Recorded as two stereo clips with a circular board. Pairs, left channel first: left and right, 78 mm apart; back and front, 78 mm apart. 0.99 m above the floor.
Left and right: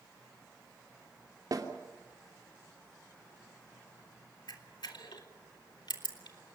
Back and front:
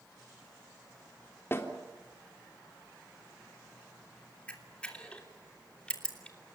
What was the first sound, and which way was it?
A snare drum, 125° right.